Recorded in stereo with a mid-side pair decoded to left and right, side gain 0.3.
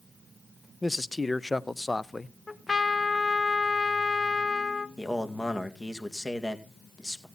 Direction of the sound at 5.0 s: 25° left.